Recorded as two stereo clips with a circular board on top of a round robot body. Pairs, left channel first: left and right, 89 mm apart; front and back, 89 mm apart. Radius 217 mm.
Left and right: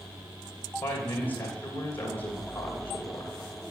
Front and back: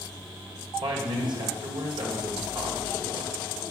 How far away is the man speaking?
About 2.5 m.